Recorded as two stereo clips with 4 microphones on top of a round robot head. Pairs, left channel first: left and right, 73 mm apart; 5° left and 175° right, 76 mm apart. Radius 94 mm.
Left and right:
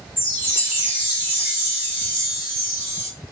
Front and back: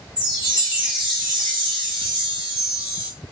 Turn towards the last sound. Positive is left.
turn(degrees=-155)